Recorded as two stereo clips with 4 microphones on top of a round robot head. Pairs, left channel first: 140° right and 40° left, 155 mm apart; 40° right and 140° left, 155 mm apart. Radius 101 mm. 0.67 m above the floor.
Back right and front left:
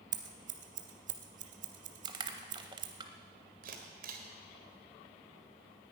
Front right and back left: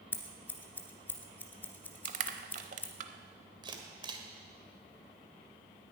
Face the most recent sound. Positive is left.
turn(degrees=75)